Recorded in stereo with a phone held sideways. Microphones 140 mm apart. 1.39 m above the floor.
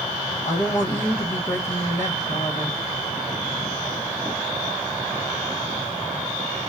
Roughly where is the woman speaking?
Left.